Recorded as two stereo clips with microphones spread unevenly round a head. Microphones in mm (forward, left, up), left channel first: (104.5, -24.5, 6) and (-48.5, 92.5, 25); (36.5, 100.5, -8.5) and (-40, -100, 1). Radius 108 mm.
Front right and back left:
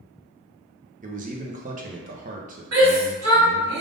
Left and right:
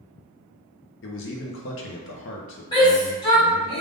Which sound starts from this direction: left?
A man speaking, at 1.0 s.